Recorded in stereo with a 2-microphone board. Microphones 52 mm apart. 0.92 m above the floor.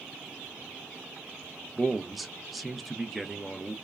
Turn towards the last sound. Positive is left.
turn(degrees=0)  # may be behind; listen again after turning